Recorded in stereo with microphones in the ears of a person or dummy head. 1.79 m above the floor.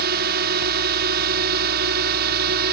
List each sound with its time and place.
0.0 s a drone: 60° right (ahead or behind)